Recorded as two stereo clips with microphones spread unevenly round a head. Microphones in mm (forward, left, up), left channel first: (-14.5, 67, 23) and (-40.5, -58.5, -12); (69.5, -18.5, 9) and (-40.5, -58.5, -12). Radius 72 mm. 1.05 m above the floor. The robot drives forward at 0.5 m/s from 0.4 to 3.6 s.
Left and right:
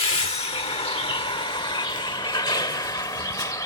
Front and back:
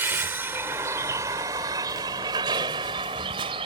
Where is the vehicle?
120° left; by 3.7 s 140° left.